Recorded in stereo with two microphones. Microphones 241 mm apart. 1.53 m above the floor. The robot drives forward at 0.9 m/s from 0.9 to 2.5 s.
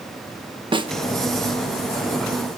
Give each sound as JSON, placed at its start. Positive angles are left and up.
{"t": 0.7, "sound": "a snare drum", "side_deg": -20, "distance_m": 0.7}